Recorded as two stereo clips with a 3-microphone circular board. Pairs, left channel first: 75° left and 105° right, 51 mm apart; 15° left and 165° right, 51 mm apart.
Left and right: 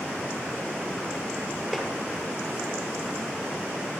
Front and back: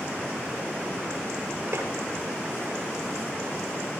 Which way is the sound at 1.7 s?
170° left.